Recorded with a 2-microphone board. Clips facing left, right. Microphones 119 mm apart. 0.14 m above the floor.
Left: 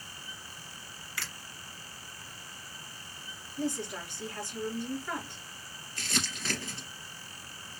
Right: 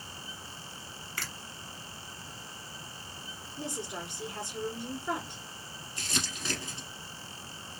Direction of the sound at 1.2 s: 45° right (ahead or behind).